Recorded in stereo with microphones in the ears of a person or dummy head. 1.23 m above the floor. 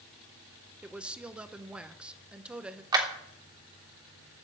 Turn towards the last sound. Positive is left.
turn(degrees=-25)  # may be behind; listen again after turning